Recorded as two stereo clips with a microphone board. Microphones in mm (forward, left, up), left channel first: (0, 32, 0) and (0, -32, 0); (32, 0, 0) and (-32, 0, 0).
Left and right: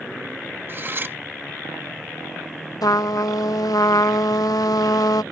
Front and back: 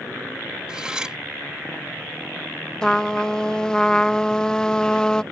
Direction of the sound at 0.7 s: 110° right.